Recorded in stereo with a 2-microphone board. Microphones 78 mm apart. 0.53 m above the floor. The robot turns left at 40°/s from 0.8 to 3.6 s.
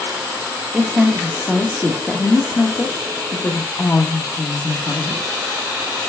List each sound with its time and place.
0.7 s a woman speaking: 5° right (ahead or behind), 1.1 m; by 5.3 s 25° left (ahead or behind), 1.1 m